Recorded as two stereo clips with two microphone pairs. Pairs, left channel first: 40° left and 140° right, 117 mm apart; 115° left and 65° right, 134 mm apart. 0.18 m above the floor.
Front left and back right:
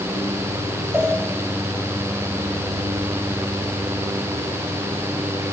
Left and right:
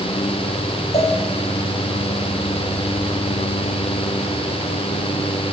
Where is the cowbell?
150° left, 5.5 m.